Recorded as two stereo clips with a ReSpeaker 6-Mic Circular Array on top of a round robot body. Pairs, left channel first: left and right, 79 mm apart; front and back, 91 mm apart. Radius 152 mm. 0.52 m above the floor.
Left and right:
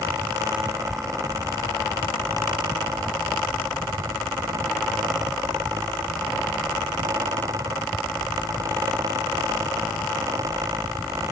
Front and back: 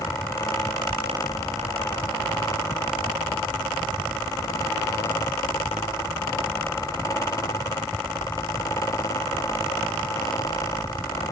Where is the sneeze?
I don't hear a sneeze.